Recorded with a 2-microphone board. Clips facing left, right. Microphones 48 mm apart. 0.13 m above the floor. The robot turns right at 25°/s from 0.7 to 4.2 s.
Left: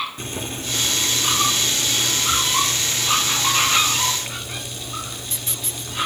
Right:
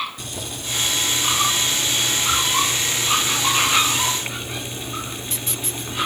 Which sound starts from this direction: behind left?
Boiling, at 0.2 s.